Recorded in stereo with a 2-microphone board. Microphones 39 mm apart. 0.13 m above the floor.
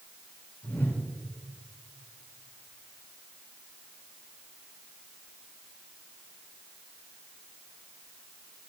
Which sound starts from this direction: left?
A whoosh, at 0.6 s.